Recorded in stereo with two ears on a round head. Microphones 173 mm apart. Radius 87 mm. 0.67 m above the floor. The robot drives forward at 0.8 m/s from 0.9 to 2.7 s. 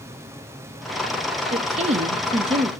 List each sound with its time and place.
1.5 s a woman speaking: 30° right (ahead or behind), 0.9 m; by 2.7 s 25° right (ahead or behind), 1.0 m